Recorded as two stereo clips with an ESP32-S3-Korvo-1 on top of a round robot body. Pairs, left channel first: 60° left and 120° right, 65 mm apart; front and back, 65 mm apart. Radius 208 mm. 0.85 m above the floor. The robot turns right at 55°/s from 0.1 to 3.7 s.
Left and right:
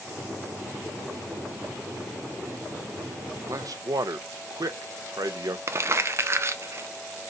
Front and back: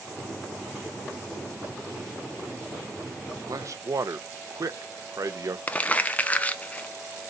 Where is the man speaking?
155° right, 0.9 m; by 5.6 s 145° right, 0.9 m.